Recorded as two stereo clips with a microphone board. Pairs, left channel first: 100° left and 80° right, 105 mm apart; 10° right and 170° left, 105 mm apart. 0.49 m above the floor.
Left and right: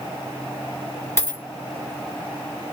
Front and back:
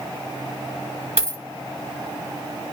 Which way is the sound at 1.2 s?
165° left.